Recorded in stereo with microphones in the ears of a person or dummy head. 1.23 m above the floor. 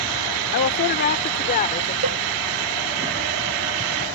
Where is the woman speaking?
55° left (ahead or behind); by 1.9 s 35° left (ahead or behind).